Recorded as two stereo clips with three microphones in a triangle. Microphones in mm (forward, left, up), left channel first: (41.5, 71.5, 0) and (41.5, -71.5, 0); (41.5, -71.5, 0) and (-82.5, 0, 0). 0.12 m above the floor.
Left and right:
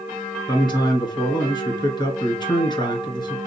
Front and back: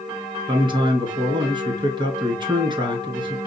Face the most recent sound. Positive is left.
turn(degrees=125)